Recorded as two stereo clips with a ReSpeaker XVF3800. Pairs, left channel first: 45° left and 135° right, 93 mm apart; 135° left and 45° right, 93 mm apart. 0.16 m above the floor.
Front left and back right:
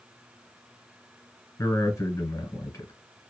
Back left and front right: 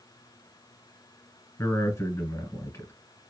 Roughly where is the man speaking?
Left.